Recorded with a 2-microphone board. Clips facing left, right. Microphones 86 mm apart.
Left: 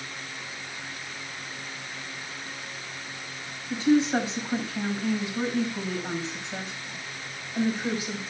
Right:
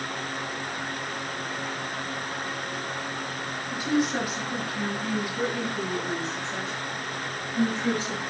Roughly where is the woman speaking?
Left.